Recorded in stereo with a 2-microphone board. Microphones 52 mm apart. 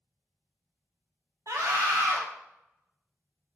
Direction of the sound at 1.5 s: 70° right (ahead or behind).